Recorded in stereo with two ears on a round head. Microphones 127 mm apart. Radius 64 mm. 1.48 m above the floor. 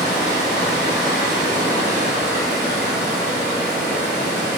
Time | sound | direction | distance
0.0 | running water | 55° right (ahead or behind) | 1.5 m